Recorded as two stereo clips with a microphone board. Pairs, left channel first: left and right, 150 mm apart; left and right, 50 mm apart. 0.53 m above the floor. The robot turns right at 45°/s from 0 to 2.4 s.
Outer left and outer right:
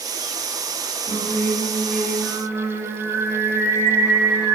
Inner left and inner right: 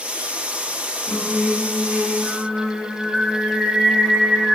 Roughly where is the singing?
Behind left.